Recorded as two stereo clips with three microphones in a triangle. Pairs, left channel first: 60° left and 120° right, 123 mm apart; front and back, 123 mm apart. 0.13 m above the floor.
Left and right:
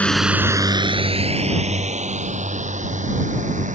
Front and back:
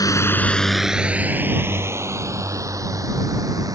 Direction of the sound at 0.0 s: 10° right.